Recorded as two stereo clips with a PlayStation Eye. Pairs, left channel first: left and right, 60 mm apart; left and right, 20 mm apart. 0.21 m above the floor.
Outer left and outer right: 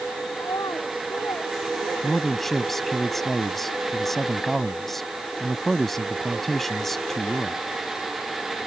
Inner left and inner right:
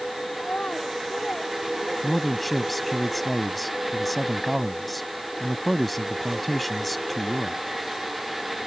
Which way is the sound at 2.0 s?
5° left (ahead or behind).